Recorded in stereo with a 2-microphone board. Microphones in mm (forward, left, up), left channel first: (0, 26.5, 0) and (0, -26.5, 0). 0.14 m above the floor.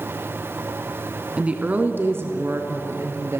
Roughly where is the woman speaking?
Right.